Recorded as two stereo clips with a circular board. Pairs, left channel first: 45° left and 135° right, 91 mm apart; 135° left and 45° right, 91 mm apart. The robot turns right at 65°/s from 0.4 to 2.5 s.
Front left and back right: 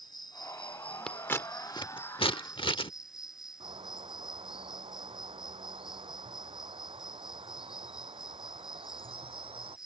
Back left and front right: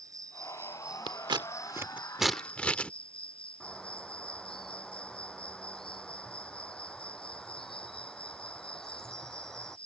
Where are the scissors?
35° right; by 2.9 s 60° left.